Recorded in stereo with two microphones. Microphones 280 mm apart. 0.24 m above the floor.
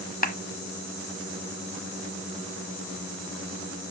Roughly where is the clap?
Left.